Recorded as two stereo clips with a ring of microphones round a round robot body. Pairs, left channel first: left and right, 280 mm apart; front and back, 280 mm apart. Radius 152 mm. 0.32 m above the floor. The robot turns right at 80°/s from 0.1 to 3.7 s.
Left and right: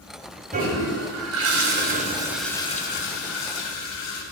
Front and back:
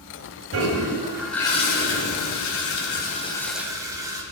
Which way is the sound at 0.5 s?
150° right.